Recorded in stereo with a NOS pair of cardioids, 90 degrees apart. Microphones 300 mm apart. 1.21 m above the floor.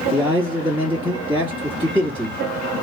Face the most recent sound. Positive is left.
turn(degrees=-10)